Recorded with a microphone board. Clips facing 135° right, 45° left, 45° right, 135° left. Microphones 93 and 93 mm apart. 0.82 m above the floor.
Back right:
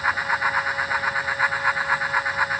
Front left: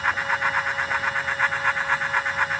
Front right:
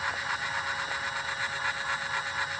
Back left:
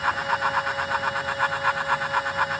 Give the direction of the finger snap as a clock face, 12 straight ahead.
No finger snap in this recording.